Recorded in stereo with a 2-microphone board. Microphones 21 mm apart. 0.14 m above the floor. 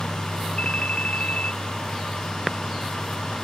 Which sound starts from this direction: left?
A ringtone, at 0.6 s.